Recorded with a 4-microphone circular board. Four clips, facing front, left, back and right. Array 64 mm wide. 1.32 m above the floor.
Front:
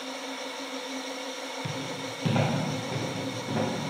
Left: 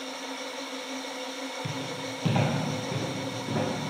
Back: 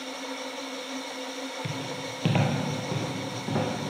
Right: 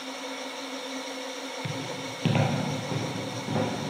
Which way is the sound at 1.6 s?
120° right.